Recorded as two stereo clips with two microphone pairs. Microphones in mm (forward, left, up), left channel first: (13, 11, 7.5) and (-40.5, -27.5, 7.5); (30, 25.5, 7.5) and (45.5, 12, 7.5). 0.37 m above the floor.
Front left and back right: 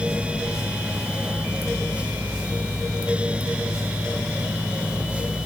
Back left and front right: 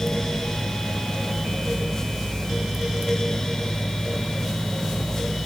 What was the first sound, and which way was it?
Only background noise.